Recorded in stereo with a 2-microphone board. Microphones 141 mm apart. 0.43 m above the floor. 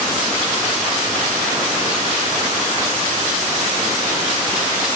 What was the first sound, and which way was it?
Only background noise.